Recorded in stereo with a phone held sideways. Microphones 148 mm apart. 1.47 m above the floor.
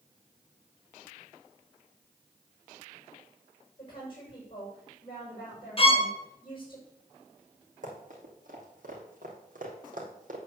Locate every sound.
3.8 s a woman speaking: 35° left (ahead or behind), 6 m
5.8 s a violin: 35° left (ahead or behind), 1.1 m
7.8 s running footsteps: 60° right (ahead or behind), 3.5 m